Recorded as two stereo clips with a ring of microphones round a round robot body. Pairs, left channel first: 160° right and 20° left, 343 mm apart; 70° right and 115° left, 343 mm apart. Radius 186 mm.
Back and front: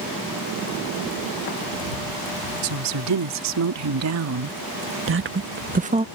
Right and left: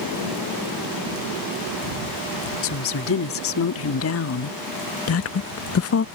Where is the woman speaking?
15° right; by 6.0 s 45° right.